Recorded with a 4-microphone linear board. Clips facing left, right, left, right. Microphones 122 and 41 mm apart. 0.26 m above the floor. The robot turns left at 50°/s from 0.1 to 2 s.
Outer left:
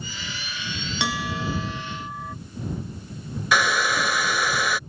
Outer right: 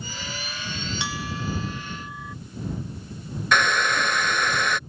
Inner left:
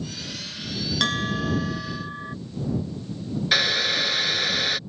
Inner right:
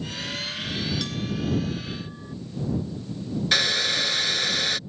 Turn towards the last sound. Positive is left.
turn(degrees=5)  # may be behind; listen again after turning